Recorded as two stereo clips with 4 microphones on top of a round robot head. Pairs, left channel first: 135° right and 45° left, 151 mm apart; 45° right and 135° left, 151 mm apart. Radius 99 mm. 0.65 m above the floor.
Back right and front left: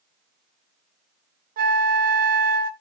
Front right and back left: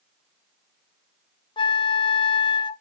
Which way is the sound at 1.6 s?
15° left.